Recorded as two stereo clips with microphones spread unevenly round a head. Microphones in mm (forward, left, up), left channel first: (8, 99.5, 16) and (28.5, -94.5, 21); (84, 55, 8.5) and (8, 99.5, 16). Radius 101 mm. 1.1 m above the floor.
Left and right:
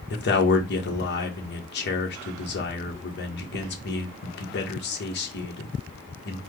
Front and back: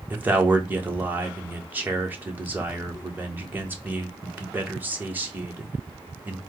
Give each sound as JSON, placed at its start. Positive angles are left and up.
{"t": 0.1, "sound": "a man speaking", "azimuth_deg": 80, "distance_m": 1.3}